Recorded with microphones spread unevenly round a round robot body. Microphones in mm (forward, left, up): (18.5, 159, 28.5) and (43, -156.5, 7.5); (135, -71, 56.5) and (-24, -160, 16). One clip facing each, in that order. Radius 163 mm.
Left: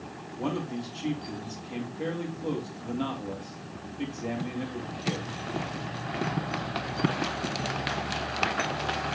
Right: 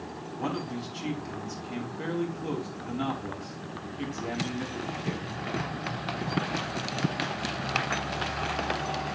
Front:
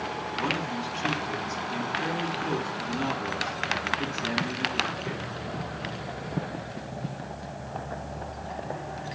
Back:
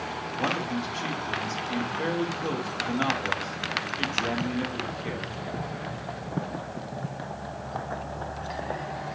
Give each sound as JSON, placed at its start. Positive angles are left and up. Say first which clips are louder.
{"t": 0.4, "sound": "a man speaking", "louder": "left 2 dB, back 3 dB", "azimuth_deg": -145, "distance_m": 3.5}